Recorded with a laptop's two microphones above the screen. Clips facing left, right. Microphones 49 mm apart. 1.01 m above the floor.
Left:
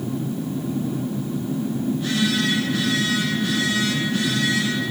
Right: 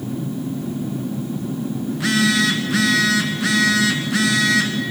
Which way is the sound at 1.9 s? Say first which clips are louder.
Right 5 dB; 75° right (ahead or behind).